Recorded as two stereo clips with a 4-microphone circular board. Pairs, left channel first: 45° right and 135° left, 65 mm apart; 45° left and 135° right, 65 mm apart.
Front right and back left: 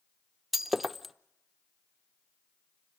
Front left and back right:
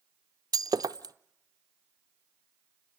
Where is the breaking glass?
135° right, 0.6 m.